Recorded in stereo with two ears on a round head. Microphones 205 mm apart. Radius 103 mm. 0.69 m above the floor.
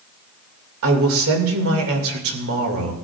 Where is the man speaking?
65° right (ahead or behind), 3 m.